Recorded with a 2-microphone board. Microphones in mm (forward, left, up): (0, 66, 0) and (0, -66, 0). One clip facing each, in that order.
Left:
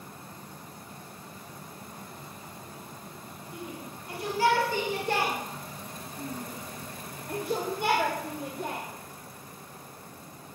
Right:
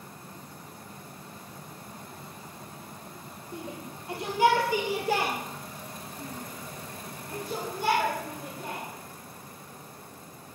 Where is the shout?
30° right (ahead or behind), 4 m; by 8.8 s 70° left (ahead or behind), 4.5 m.